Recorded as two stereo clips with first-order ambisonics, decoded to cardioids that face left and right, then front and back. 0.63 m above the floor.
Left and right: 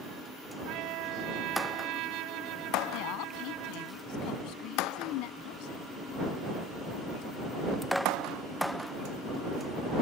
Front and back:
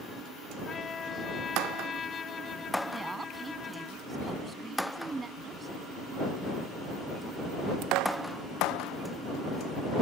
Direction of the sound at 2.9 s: 105° left.